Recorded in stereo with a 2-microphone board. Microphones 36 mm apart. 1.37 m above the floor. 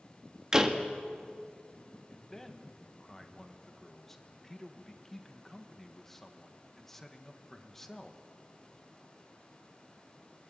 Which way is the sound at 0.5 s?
15° right (ahead or behind).